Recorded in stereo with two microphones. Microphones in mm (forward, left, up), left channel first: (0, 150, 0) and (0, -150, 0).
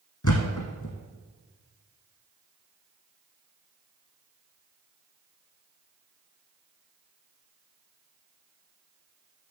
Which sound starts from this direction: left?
A thud, at 0.2 s.